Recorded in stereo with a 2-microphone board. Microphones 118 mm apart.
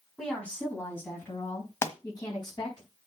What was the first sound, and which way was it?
A woman speaking, 5° left (ahead or behind).